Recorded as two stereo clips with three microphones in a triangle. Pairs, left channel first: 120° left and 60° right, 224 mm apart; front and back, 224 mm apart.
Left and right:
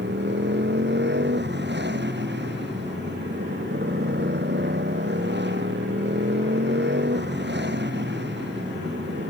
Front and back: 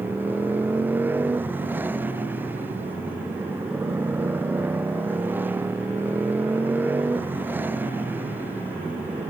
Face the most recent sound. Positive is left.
turn(degrees=-100)